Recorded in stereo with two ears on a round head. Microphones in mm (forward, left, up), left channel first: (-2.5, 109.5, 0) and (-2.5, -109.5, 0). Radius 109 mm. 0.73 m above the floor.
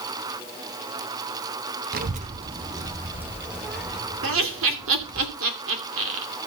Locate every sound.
1.9 s a child speaking: 40° right (ahead or behind), 0.6 m; by 5.2 s 5° left (ahead or behind), 2 m
4.2 s laughter: 55° right (ahead or behind), 2.5 m